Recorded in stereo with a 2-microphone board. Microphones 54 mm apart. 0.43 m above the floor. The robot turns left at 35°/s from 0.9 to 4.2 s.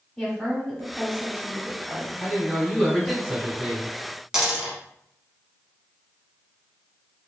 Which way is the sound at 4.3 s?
15° right (ahead or behind).